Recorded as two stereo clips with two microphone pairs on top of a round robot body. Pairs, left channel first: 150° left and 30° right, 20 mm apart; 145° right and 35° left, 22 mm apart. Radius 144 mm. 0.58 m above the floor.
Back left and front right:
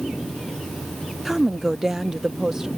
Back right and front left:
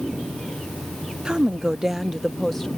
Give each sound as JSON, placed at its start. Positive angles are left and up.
{"t": 1.2, "sound": "a woman speaking", "azimuth_deg": 45}